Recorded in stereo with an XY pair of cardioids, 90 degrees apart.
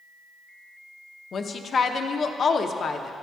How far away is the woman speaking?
About 0.6 m.